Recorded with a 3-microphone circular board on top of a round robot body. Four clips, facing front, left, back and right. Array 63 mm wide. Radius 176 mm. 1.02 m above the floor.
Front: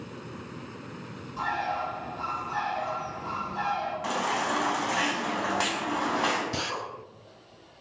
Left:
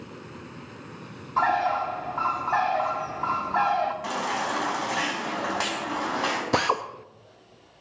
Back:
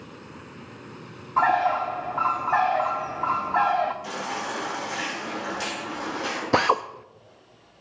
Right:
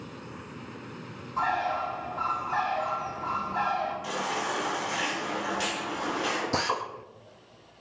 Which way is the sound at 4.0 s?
50° left.